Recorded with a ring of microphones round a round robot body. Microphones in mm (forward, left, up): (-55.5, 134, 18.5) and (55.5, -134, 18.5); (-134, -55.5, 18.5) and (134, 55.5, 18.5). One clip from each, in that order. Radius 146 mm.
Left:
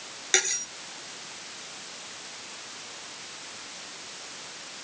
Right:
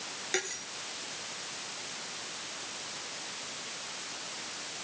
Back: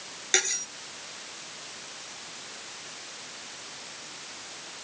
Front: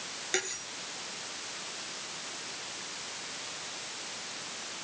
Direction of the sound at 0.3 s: 155° left.